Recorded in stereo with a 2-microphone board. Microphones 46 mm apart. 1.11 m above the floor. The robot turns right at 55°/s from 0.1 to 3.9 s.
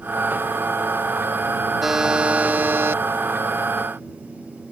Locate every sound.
1.8 s a buzzer: 175° right; by 3.0 s 110° right